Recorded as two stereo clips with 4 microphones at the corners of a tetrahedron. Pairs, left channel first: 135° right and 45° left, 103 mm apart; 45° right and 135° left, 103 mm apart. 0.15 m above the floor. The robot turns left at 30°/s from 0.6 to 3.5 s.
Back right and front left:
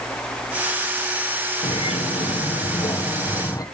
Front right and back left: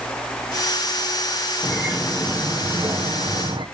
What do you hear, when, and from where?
1.6 s a bird: 130° right, 2 m; by 3.6 s 170° left, 2 m